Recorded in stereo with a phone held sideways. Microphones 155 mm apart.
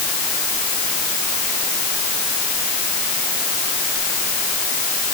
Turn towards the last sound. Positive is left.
No sound to turn to.